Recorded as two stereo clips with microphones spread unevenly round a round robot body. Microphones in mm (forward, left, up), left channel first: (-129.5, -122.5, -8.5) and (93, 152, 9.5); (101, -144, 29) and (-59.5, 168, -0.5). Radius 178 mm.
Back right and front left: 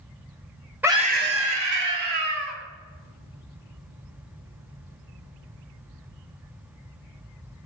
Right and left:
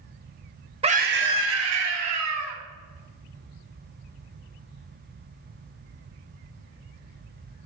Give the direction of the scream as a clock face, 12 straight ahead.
7 o'clock.